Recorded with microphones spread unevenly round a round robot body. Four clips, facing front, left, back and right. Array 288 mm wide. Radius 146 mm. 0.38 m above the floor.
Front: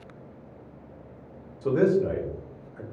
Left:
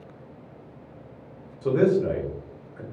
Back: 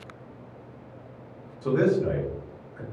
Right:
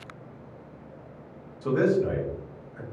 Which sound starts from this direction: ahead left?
A man speaking, at 1.6 s.